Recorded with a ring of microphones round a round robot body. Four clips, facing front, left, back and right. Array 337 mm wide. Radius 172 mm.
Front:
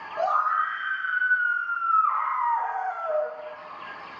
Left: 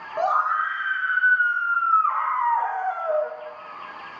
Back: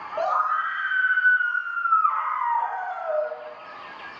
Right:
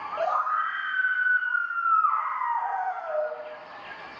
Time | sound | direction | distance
0.2 | a scream | 80° left | 2 m